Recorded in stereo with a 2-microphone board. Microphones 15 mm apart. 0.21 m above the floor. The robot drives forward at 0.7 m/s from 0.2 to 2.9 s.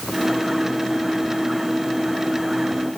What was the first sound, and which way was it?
Only background noise.